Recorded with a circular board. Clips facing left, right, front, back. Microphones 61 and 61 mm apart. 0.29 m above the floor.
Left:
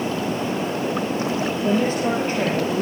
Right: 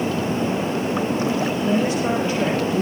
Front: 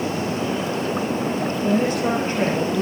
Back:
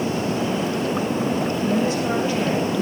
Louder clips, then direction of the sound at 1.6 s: Left 1 dB, front 3 dB; 45° left.